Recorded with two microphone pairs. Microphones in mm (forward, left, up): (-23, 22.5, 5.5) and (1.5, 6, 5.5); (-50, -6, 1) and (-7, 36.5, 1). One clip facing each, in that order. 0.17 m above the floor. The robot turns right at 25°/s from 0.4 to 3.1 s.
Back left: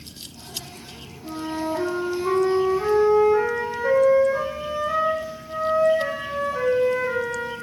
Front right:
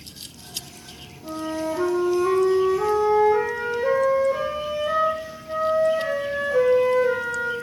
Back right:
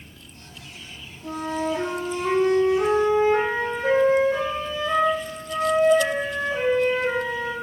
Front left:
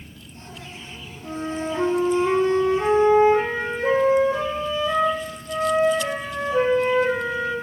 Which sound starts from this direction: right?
A flute, at 1.2 s.